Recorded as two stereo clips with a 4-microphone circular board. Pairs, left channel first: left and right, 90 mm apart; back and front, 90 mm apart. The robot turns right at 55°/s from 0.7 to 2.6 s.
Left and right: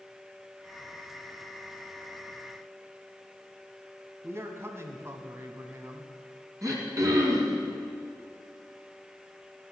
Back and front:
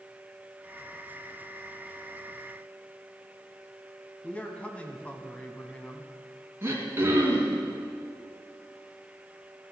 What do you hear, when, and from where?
4.2 s a man speaking: 120° right, 1.2 m
6.6 s throat clearing: 55° right, 2 m